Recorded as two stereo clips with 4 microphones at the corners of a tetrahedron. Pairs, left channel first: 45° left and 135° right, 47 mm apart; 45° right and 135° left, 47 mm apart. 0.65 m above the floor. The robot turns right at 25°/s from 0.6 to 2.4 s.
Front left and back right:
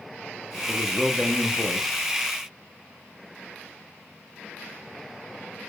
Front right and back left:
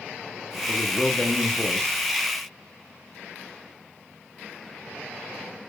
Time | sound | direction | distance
0.7 | a man speaking | 65° right | 0.7 m